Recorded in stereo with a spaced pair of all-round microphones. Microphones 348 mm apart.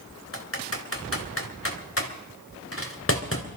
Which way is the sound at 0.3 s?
40° left (ahead or behind).